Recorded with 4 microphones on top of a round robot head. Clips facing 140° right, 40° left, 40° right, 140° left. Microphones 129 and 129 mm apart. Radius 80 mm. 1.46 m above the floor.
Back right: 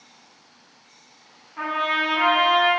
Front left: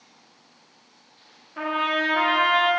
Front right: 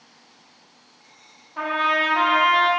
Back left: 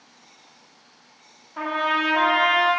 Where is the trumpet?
50° left, 0.5 m.